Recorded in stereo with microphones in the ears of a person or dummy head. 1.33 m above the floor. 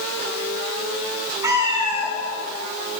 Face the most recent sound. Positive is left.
turn(degrees=-10)  # may be behind; listen again after turning